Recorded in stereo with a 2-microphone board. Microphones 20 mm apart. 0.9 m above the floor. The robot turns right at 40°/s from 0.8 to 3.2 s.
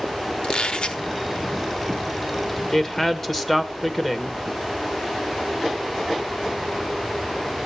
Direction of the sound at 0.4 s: 50° left (ahead or behind).